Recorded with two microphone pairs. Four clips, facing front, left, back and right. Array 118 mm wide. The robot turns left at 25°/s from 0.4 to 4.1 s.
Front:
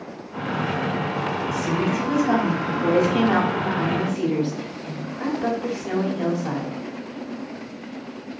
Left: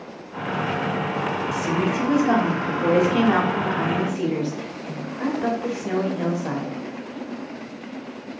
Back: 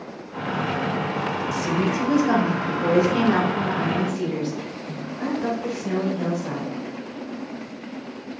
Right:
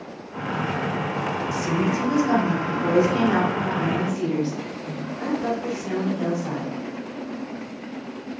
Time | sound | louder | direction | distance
1.5 | a woman speaking | even, even | 130° left | 1.5 m